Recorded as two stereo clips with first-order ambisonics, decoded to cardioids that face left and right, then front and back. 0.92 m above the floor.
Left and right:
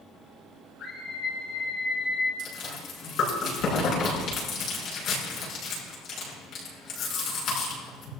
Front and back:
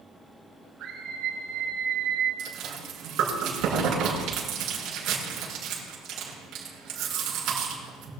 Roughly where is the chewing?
Behind left.